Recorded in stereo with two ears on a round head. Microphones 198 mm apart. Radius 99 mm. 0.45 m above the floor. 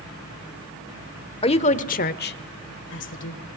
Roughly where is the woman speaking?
Left.